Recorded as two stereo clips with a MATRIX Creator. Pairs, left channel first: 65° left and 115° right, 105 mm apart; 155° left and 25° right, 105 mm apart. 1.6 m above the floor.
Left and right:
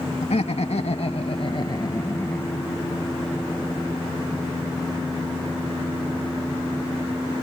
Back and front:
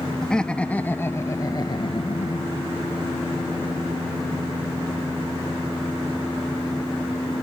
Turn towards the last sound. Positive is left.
turn(degrees=150)